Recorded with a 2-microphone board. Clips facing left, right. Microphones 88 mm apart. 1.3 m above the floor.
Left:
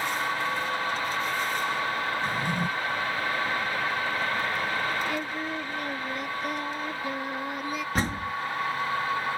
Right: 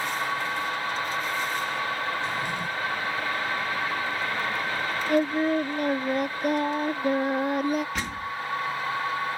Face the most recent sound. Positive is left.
turn(degrees=40)  # may be behind; listen again after turning